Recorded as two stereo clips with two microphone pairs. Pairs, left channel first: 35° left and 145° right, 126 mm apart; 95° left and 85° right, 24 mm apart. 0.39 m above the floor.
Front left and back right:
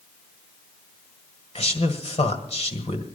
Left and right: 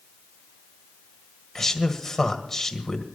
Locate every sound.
1.6 s a man speaking: 25° left, 2.0 m